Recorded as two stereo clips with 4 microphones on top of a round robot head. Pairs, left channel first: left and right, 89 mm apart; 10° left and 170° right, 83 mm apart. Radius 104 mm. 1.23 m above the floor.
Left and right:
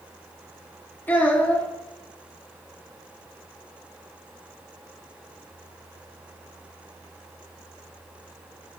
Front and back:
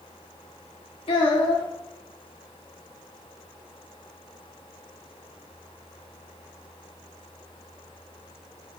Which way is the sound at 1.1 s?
20° left.